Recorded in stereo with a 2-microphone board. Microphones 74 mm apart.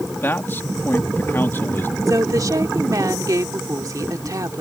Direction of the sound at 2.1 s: 55° right (ahead or behind).